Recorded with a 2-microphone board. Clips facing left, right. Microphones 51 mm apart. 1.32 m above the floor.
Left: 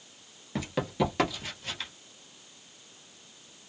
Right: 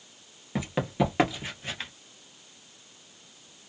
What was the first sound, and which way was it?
Running footsteps, 10° right (ahead or behind).